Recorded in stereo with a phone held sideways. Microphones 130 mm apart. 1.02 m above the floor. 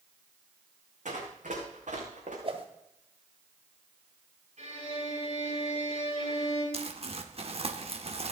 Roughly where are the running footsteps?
Right.